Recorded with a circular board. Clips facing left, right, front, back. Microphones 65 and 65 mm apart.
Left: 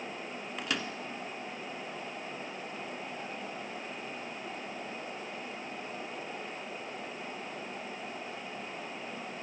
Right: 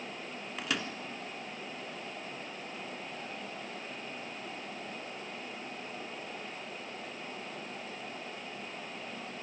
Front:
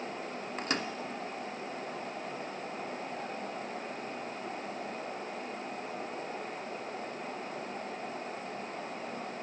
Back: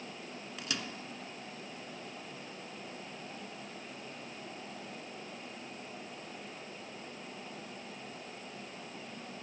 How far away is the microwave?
About 1.1 m.